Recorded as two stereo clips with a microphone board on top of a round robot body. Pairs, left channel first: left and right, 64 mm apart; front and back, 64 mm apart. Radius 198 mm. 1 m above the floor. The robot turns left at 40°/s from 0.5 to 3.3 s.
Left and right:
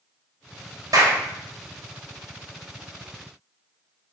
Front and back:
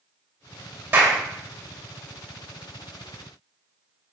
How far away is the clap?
About 2 m.